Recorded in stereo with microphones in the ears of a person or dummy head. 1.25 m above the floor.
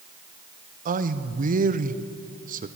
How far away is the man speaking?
About 0.6 m.